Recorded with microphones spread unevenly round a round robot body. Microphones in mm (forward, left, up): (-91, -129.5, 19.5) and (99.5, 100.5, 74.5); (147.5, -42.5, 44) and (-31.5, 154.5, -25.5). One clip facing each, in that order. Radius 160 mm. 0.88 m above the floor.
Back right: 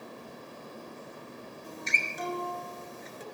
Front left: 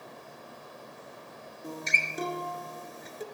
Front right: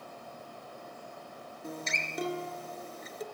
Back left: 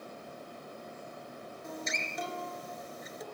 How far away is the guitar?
About 3 m.